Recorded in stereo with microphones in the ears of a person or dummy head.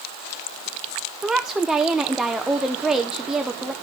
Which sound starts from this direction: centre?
A woman speaking, at 1.2 s.